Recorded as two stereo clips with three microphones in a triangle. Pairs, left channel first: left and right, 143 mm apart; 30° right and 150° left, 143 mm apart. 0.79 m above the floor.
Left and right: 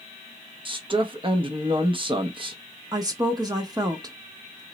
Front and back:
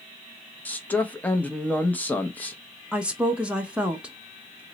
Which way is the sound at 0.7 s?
100° right.